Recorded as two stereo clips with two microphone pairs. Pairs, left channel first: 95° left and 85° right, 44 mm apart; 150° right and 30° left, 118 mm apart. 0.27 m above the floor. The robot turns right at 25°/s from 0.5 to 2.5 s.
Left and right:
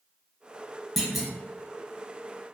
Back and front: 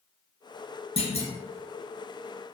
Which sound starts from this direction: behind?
A clunk, at 1.0 s.